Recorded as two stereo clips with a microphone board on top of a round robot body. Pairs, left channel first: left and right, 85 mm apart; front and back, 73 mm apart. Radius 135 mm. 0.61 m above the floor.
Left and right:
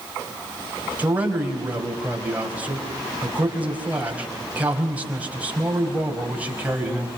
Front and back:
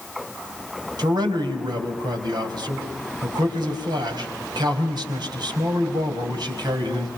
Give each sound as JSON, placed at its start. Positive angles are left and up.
{"t": 1.0, "sound": "a man speaking", "azimuth_deg": -165, "distance_m": 4.5}